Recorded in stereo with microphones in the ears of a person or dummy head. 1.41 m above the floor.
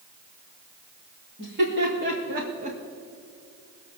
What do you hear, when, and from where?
1.4 s laughter: 60° right (ahead or behind), 3 m; by 2.8 s 35° right (ahead or behind), 1.5 m